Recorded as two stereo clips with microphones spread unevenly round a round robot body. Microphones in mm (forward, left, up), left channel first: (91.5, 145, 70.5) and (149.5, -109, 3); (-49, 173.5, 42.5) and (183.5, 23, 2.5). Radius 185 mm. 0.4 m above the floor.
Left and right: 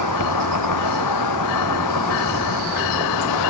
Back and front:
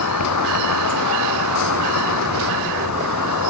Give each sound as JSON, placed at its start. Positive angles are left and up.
{"t": 0.0, "sound": "an insect", "azimuth_deg": 135}